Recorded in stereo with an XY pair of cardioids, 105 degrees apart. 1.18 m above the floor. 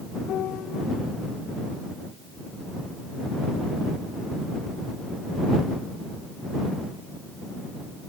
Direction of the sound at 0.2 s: 70° left.